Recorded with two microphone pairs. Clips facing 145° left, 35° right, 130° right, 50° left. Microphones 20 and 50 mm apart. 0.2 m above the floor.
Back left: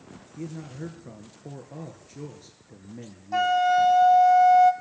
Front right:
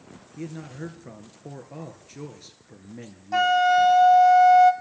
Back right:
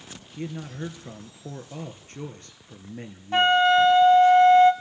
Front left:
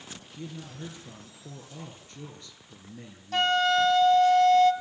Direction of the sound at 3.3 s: 85° right.